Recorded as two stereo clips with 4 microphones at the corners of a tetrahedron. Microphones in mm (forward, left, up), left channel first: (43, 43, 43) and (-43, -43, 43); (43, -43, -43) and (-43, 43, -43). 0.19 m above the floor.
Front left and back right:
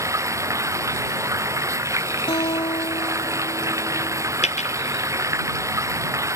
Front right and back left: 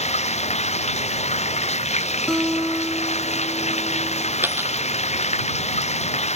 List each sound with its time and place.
0.0 s running water: 70° right
2.3 s a guitar: 35° left
4.4 s a dropped coin: 65° left